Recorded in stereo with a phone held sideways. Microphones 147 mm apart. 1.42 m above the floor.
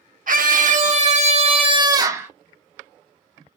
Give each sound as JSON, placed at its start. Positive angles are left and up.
{"t": 0.3, "sound": "a scream", "side_deg": -70, "distance_m": 2.0}